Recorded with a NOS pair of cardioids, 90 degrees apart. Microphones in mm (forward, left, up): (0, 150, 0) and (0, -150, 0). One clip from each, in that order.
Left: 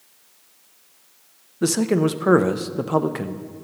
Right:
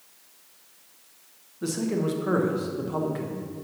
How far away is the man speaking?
About 0.6 m.